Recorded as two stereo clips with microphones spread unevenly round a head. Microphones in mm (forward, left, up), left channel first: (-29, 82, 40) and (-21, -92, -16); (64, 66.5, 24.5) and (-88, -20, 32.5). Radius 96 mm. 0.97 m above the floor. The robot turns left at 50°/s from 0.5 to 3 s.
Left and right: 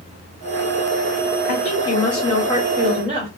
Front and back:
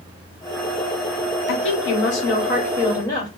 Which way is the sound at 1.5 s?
35° left.